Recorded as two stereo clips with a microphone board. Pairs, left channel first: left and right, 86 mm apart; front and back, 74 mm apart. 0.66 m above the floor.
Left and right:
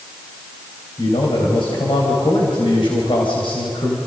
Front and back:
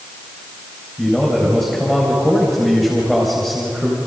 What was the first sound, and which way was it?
A man speaking, 85° left.